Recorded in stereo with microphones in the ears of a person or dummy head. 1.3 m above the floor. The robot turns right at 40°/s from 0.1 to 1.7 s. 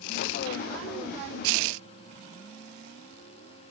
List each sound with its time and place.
Only background noise.